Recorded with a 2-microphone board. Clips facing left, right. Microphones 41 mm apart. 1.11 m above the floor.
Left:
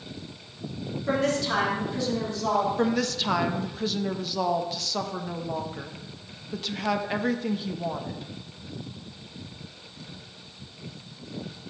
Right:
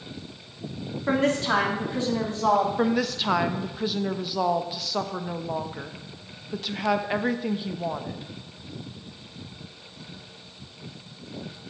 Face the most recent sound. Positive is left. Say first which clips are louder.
# right 1 dB
turn(degrees=-10)  # may be behind; listen again after turning